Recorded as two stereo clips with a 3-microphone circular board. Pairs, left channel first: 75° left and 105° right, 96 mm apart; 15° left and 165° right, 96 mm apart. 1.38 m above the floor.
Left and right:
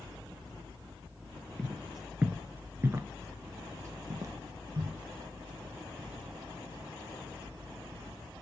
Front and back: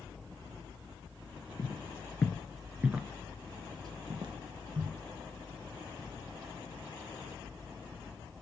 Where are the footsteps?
10° right, 1.7 m; by 5.0 s 155° right, 3 m.